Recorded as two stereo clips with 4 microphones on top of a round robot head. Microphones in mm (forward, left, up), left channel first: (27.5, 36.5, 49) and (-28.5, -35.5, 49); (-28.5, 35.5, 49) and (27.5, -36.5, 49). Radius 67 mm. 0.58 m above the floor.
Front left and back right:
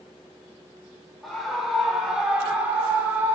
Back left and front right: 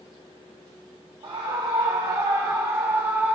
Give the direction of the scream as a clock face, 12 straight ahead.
1 o'clock.